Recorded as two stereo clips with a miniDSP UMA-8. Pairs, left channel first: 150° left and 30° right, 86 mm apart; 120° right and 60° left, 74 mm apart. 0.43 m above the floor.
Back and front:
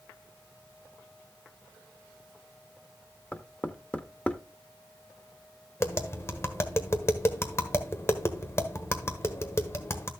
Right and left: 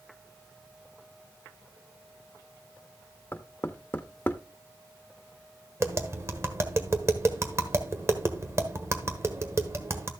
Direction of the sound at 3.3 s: 150° right.